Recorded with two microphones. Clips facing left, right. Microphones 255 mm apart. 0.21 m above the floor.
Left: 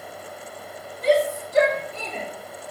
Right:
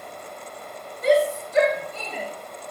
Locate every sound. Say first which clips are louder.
1.0 s a shout: right 1 dB; 35° left (ahead or behind), 2.0 m; by 2.3 s 40° left (ahead or behind), 3 m